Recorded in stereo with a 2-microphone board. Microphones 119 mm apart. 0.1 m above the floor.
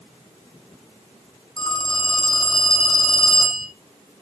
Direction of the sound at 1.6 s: 45° left (ahead or behind).